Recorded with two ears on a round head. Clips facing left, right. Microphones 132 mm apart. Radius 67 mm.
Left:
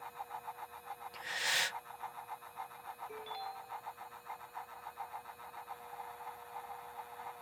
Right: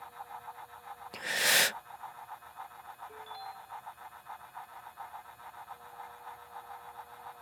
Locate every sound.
1.1 s breathing: 65° right (ahead or behind)
3.1 s a ringtone: 20° left (ahead or behind)